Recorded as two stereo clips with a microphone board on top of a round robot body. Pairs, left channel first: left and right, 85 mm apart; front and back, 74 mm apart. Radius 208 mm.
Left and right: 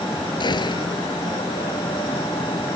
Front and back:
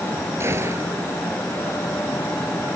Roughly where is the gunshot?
Behind left.